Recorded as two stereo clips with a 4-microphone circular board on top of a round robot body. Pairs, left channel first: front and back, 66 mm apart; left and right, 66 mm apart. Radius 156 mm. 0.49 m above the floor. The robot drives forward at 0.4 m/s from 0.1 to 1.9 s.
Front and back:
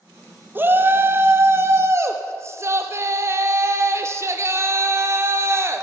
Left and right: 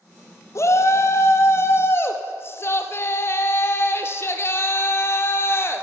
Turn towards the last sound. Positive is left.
turn(degrees=135)